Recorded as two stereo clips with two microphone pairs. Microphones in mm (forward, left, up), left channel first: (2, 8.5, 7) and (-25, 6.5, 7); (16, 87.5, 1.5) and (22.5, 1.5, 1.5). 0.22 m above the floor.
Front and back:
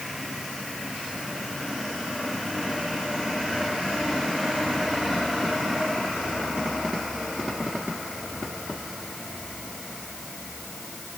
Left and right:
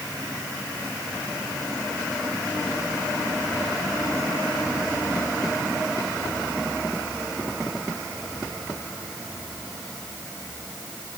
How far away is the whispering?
No whispering in this recording.